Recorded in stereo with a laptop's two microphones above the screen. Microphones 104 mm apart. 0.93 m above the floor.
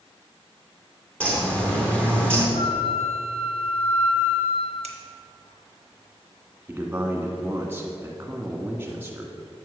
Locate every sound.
1.2 s a bird: 15° left (ahead or behind), 2.5 m
2.5 s a flute: 70° left (ahead or behind), 0.7 m
4.8 s scissors: 75° right (ahead or behind), 1.1 m
6.7 s a man speaking: 20° right (ahead or behind), 1.7 m